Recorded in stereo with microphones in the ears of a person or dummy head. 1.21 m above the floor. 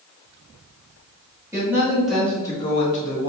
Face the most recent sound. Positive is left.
turn(degrees=55)  # may be behind; listen again after turning